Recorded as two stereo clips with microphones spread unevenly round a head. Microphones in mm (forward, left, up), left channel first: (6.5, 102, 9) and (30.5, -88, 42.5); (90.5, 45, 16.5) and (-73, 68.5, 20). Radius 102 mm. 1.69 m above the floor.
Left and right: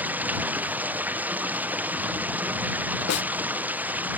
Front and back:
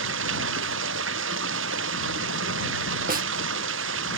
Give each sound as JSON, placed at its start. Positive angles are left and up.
{"t": 0.0, "sound": "running water", "azimuth_deg": -165}
{"t": 3.1, "sound": "a snare drum", "azimuth_deg": 135}